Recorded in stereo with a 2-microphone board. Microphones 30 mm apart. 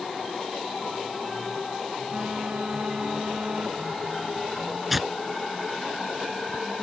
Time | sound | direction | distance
2.1 | a phone buzzing | 40° right (ahead or behind) | ?
4.9 | tearing paper | 5° right (ahead or behind) | ?